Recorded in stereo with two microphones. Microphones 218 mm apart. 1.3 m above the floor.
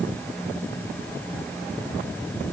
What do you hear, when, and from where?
Only background noise.